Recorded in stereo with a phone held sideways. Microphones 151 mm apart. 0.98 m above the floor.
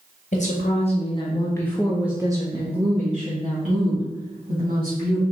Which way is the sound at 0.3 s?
55° left (ahead or behind).